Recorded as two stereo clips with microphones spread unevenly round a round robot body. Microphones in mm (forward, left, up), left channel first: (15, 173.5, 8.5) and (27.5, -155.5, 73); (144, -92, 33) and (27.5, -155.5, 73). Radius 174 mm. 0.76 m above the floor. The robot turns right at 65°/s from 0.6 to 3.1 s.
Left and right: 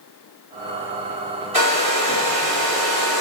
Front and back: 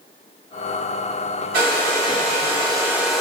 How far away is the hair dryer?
About 0.9 m.